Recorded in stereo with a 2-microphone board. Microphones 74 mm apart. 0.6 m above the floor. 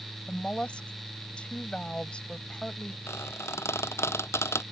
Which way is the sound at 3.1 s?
40° left (ahead or behind).